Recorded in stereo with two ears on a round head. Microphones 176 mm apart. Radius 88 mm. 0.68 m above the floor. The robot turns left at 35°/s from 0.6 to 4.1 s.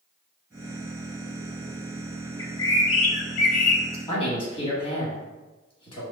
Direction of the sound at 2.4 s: 160° left.